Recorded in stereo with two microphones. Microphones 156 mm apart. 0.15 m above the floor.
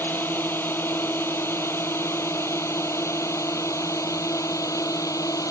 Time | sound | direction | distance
0.0 | a drone | 10° left (ahead or behind) | ?